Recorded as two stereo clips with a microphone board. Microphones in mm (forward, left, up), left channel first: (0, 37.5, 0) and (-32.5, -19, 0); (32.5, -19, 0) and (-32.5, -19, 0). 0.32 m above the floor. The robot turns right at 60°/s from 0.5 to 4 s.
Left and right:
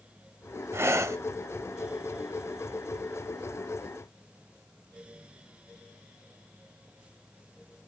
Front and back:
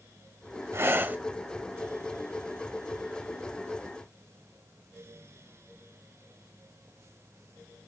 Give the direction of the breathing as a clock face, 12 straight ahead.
5 o'clock.